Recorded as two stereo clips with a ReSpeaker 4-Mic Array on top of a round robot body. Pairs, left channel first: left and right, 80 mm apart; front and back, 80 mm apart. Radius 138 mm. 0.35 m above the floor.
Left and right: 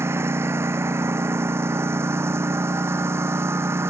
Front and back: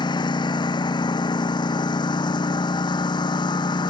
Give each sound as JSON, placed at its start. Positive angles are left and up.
{"t": 0.0, "sound": "a lawn mower", "azimuth_deg": -30}